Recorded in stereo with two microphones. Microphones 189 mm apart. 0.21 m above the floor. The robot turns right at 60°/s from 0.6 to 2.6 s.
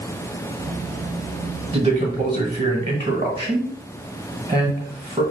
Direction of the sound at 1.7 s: 25° right (ahead or behind).